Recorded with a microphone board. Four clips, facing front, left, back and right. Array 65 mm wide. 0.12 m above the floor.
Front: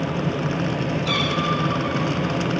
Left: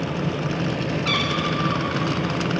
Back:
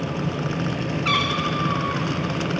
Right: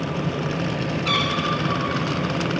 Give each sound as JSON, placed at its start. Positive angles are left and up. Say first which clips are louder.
{"t": 1.1, "sound": "a cat meowing", "louder": "right 2 dB, back 2 dB", "azimuth_deg": 175, "distance_m": 5.5}